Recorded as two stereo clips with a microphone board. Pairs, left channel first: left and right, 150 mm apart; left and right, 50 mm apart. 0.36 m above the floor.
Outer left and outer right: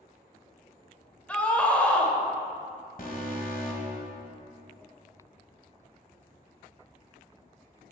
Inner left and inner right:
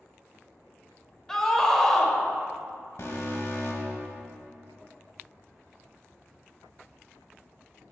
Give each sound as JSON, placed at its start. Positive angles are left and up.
{"t": 1.3, "sound": "a scream", "side_deg": 10, "distance_m": 1.0}
{"t": 3.0, "sound": "an alarm", "side_deg": 65, "distance_m": 1.2}